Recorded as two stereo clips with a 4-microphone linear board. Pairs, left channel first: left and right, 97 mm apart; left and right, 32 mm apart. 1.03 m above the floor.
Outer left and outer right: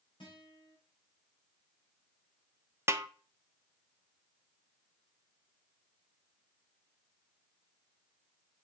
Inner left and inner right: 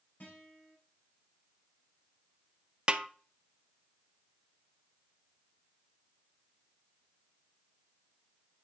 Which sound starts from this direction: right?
A snare drum, at 2.9 s.